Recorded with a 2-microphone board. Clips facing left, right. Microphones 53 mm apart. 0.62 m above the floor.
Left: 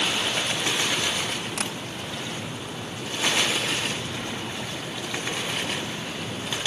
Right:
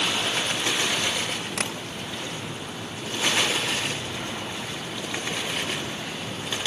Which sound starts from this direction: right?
Tapping, at 1.6 s.